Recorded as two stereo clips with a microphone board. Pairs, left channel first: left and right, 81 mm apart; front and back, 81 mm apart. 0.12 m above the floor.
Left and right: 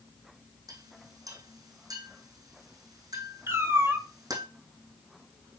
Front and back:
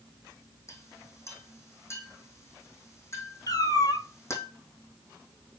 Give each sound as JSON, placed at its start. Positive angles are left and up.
{"t": 0.7, "sound": "a clink", "azimuth_deg": -55, "distance_m": 4.0}
{"t": 3.5, "sound": "a cat meowing", "azimuth_deg": -35, "distance_m": 1.2}